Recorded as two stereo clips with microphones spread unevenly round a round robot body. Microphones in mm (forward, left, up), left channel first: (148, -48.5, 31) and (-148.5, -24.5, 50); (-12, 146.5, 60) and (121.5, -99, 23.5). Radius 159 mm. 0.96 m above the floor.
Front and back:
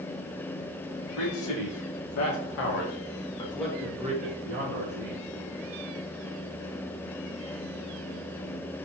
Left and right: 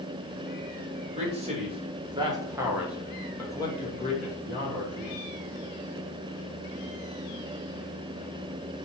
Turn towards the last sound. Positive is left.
turn(degrees=170)